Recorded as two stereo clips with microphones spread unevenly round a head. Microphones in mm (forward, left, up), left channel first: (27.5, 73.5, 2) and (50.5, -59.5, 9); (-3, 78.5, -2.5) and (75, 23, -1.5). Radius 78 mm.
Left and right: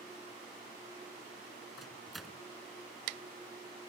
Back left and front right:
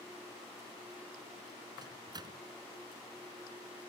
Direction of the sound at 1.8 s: 10° left.